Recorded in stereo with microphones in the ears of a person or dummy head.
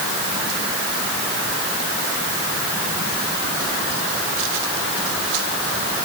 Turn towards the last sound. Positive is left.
No sound to turn to.